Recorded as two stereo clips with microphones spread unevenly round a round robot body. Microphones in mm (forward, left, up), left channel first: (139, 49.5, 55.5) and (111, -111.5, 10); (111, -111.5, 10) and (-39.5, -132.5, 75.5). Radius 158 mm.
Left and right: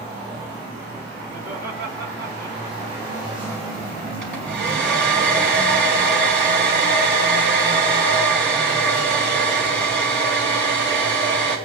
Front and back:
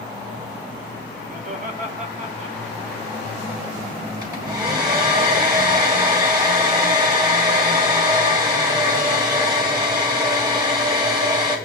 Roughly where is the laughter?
Behind right.